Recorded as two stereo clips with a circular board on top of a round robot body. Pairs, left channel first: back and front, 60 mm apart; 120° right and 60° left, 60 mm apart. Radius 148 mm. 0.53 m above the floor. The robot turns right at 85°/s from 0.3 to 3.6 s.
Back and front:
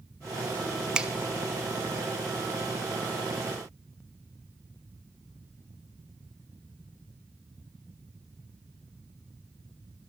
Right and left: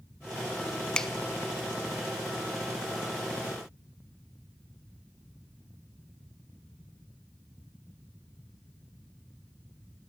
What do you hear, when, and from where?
0.9 s a finger snap: 60° right, 0.5 m; by 1.1 s 45° right, 0.5 m